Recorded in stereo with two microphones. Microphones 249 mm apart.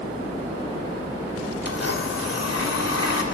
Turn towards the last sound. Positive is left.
turn(degrees=75)  # may be behind; listen again after turning